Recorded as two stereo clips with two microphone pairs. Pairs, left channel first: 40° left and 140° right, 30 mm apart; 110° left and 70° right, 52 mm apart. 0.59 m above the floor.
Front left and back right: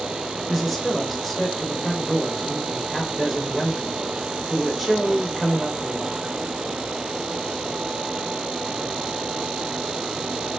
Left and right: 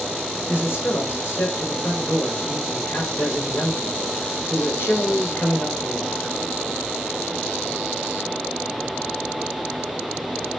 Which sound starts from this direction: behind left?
A man speaking, at 0.5 s.